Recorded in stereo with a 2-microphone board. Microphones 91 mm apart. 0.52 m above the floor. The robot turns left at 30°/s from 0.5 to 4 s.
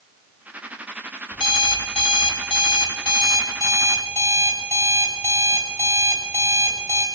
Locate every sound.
1.3 s an alarm clock: 110° left, 1.3 m; by 7.0 s 30° left, 1.3 m